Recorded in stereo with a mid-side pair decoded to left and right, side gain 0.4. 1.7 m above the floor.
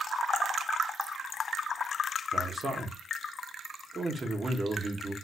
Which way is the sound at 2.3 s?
35° right.